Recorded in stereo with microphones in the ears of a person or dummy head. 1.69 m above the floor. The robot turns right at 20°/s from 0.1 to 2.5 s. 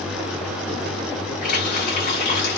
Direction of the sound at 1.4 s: 55° left (ahead or behind).